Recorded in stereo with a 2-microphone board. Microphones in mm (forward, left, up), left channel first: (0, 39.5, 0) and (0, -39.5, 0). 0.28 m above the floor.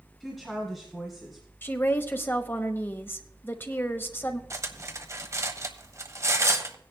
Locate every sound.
0.2 s a woman speaking: centre (ahead or behind), 2 m
1.6 s a woman speaking: 25° left (ahead or behind), 1.0 m
4.5 s cutlery clinking: 40° right (ahead or behind), 0.9 m